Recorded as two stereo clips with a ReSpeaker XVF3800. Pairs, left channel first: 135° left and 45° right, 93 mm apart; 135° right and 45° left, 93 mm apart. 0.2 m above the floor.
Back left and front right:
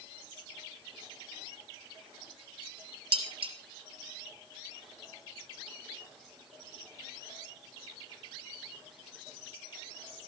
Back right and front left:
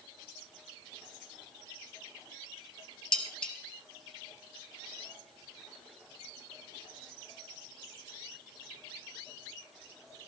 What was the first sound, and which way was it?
Dishes clattering, 50° right.